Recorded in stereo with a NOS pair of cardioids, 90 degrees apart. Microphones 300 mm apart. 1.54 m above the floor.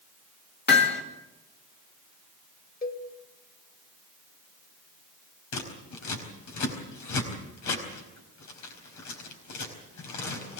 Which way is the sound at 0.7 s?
35° left.